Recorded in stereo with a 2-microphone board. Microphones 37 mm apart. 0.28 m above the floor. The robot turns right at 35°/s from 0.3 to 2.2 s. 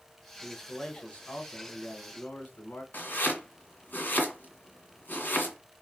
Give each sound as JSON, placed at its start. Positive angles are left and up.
{"t": 0.4, "sound": "a man speaking", "azimuth_deg": 5, "distance_m": 1.9}
{"t": 2.9, "sound": "chopping", "side_deg": 50, "distance_m": 2.0}